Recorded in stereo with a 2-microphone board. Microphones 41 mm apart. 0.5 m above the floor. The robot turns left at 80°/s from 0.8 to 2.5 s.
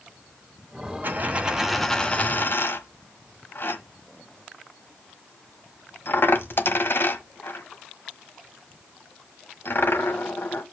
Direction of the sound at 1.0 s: 55° right (ahead or behind).